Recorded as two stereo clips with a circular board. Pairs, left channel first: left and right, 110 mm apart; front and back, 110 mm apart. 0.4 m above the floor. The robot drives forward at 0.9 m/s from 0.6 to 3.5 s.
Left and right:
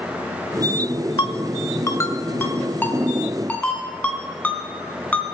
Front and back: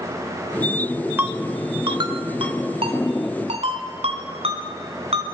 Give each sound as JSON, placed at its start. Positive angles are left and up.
{"t": 1.2, "sound": "a ringtone", "azimuth_deg": 115, "distance_m": 0.9}